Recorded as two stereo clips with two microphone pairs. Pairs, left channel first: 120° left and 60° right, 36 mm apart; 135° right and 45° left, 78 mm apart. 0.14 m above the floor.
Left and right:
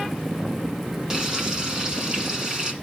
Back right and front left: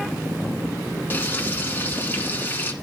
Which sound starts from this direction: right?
Frying, at 1.1 s.